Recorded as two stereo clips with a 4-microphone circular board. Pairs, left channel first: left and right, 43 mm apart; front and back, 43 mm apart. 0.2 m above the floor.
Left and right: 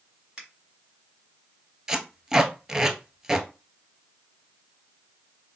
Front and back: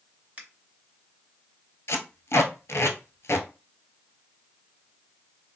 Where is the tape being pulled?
15° right, 0.6 m.